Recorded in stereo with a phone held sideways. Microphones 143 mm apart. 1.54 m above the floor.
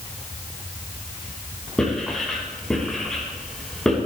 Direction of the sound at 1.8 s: 5° left (ahead or behind).